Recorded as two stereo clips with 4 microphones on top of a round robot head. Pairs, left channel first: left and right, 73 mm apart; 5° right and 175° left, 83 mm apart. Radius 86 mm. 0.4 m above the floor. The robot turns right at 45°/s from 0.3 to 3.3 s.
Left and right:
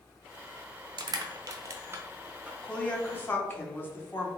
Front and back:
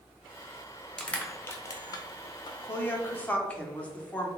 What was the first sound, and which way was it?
Crushing, 85° right.